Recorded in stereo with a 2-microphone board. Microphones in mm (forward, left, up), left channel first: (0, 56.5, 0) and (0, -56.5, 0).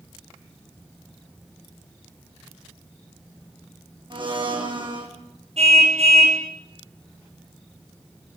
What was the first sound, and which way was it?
A blender, 45° right (ahead or behind).